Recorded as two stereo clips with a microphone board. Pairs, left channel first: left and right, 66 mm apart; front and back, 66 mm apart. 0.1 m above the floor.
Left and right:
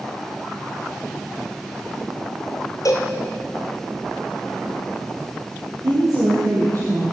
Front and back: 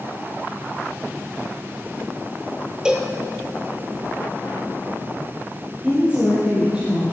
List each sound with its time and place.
2.9 s a cowbell: 105° left, 1.5 m
5.8 s a woman speaking: 110° right, 3.5 m